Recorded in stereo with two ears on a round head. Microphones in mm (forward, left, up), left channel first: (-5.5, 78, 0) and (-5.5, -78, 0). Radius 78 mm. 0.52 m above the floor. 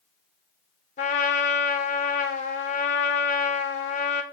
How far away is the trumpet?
About 2 m.